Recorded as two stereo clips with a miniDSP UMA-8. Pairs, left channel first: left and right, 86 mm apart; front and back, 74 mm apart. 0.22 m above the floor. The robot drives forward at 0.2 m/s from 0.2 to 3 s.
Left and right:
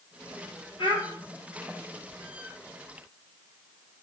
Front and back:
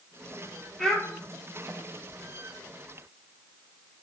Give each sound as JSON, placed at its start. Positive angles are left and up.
{"t": 0.8, "sound": "a child speaking", "azimuth_deg": 85, "distance_m": 3.0}